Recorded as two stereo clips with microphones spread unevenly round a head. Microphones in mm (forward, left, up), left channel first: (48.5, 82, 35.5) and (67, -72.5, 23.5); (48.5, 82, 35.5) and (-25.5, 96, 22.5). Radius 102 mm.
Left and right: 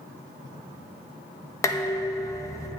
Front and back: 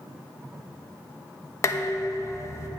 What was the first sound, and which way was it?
Dishes clattering, 30° left.